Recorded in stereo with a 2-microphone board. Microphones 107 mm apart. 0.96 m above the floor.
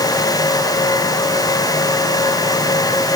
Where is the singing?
I don't hear singing.